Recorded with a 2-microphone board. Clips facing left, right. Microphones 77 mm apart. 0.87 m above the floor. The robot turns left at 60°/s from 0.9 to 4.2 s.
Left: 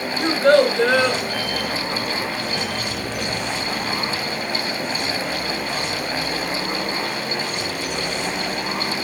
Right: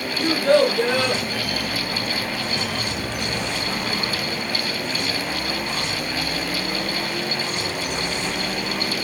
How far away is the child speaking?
About 2.5 m.